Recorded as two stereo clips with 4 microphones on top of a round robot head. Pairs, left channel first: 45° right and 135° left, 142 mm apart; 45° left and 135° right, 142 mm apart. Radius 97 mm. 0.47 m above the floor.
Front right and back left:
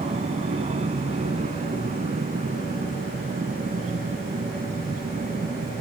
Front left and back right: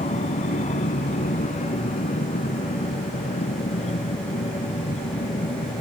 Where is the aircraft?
85° left; by 5.8 s 95° left.